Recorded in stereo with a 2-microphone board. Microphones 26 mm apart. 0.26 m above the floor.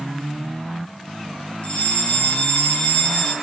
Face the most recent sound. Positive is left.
turn(degrees=50)  # may be behind; listen again after turning